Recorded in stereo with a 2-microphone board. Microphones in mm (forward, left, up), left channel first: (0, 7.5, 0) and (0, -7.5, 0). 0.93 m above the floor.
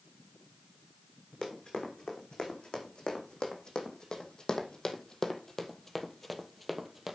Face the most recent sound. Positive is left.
turn(degrees=-15)  # may be behind; listen again after turning